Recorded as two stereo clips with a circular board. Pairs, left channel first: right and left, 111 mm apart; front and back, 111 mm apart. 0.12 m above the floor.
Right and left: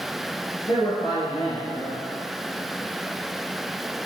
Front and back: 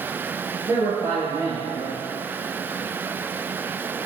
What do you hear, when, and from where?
0.7 s a man speaking: 125° right, 1.6 m